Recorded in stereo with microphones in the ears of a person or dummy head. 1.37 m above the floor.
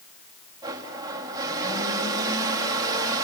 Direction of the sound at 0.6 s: 20° right (ahead or behind).